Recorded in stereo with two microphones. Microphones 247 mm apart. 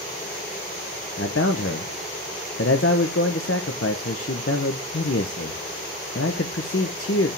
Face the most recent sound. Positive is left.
turn(degrees=60)  # may be behind; listen again after turning